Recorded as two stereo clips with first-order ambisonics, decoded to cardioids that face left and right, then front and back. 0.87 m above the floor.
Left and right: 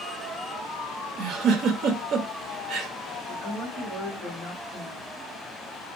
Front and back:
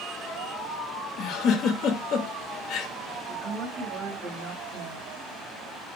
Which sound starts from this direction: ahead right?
A giggle, at 1.2 s.